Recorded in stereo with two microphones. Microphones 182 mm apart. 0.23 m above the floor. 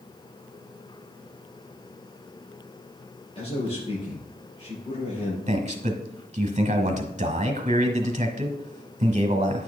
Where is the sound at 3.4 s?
35° left (ahead or behind), 4 m.